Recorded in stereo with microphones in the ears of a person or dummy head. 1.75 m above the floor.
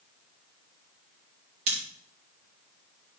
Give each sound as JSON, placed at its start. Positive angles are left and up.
{"t": 1.7, "sound": "scissors", "side_deg": -40, "distance_m": 3.5}